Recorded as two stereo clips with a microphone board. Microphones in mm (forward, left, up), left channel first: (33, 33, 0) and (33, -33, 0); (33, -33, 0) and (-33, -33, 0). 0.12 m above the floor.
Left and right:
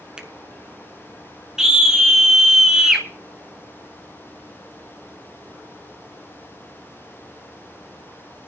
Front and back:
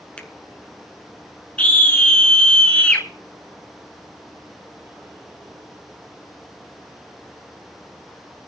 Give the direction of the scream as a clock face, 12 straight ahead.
1 o'clock.